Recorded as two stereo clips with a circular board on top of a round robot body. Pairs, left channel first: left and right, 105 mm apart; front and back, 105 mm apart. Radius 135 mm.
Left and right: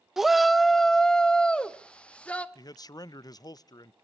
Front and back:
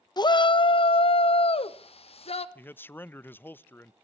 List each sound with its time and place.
0.2 s a shout: 5° right, 0.7 m; by 2.5 s 15° left, 1.7 m
2.5 s a man speaking: 65° left, 0.5 m